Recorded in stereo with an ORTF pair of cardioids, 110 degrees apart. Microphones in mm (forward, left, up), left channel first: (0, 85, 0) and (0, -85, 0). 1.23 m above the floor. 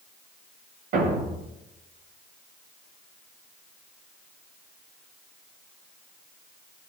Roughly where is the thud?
Ahead right.